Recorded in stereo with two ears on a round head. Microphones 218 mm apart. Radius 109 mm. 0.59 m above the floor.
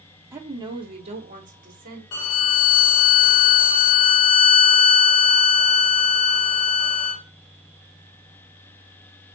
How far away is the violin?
About 0.8 m.